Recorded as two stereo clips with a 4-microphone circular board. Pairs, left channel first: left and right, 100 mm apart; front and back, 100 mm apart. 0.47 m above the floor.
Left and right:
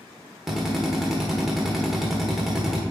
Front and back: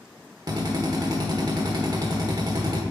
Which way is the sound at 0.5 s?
175° right.